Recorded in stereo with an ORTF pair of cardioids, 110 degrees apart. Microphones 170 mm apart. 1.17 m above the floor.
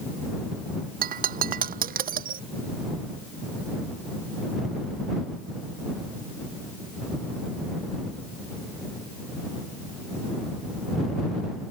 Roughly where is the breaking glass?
Ahead right.